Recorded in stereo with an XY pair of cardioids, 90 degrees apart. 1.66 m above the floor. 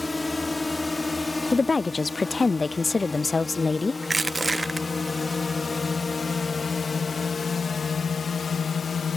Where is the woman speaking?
30° left.